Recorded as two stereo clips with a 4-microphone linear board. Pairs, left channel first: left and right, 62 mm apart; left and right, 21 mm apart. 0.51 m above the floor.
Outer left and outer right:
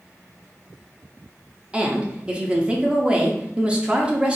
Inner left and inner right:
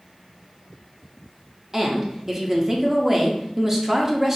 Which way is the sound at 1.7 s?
20° right (ahead or behind).